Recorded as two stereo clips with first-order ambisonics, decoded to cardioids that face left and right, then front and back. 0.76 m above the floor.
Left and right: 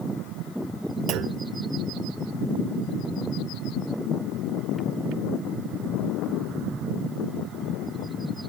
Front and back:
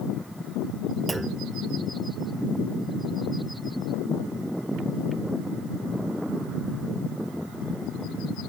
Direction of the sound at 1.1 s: 100° right.